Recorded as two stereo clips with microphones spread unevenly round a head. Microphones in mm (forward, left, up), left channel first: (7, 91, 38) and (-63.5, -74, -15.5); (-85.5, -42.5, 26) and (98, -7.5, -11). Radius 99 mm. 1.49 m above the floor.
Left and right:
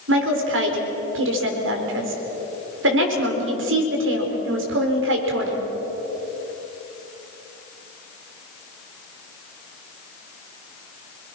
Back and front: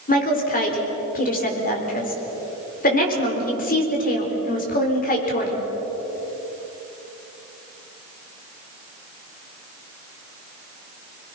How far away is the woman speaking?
About 4.5 m.